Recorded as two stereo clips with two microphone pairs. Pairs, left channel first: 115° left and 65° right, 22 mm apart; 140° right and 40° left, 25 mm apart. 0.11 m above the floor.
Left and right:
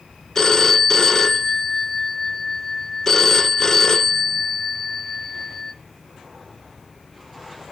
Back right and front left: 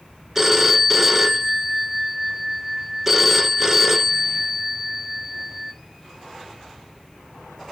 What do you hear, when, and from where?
0.3 s a phone ringing: 100° left, 0.7 m